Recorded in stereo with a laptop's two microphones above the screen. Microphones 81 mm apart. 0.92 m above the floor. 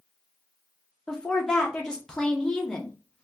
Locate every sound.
1.1 s a woman speaking: 10° left (ahead or behind), 0.7 m